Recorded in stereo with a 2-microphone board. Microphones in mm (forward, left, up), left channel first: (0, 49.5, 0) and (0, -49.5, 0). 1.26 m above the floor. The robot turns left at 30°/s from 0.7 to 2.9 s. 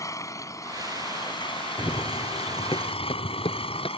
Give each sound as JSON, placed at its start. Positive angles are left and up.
{"t": 0.0, "sound": "an engine running", "azimuth_deg": 145}
{"t": 1.8, "sound": "running footsteps", "side_deg": 35}